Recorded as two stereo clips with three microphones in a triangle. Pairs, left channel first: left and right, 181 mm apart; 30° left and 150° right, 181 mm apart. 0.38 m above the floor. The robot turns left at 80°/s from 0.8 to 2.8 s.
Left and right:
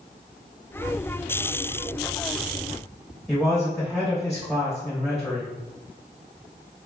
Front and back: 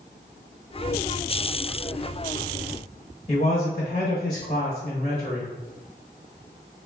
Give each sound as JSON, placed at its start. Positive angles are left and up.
{"t": 3.3, "sound": "a man speaking", "azimuth_deg": 0, "distance_m": 1.2}